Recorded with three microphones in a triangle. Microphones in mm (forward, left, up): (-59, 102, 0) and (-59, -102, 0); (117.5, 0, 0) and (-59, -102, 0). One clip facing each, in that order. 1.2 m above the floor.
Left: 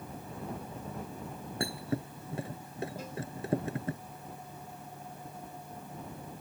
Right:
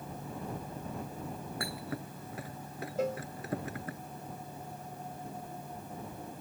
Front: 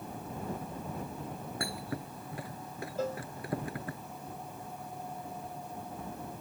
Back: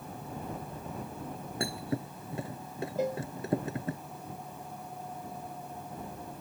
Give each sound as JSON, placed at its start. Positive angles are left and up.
{"t": 1.6, "sound": "a thud", "azimuth_deg": 150}
{"t": 3.0, "sound": "a cowbell", "azimuth_deg": -75}